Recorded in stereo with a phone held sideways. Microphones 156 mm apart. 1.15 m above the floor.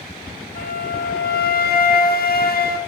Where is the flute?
75° left (ahead or behind), 0.6 m.